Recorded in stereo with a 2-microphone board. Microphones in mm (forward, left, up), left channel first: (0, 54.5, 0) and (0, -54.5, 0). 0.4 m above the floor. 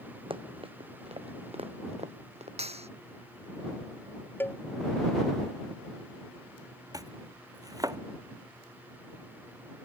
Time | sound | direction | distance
0.3 | running footsteps | 55° right (ahead or behind) | ?
2.6 | a clap | 70° right (ahead or behind) | ?
4.4 | a cowbell | 20° left (ahead or behind) | ?
6.9 | chopping | 35° right (ahead or behind) | ?